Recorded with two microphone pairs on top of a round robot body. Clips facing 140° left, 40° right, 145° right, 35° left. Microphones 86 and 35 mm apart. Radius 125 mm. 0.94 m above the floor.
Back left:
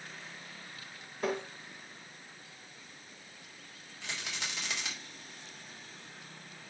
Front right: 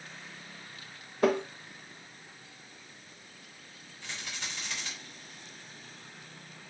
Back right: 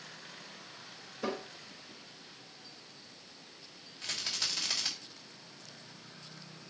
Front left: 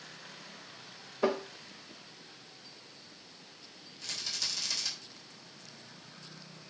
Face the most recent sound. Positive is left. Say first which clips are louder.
# back left 1 dB, back right 2 dB
turn(degrees=155)